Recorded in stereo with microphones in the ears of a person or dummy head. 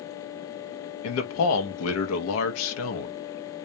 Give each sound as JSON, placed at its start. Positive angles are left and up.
{"t": 1.0, "sound": "a man speaking", "side_deg": 75, "distance_m": 0.7}